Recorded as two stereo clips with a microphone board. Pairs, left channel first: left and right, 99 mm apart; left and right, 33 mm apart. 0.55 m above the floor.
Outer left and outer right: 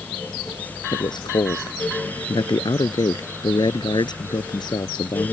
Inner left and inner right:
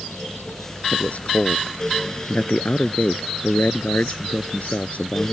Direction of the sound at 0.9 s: 50° left (ahead or behind).